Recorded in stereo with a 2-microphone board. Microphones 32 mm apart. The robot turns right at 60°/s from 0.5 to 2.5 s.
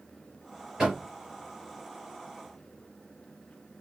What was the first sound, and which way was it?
Knocking, 20° right (ahead or behind).